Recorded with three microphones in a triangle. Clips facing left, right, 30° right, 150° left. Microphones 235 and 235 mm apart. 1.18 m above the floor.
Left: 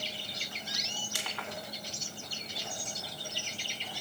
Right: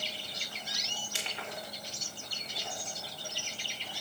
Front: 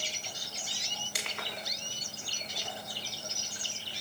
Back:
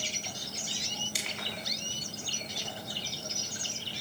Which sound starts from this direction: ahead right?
Crushing, at 1.1 s.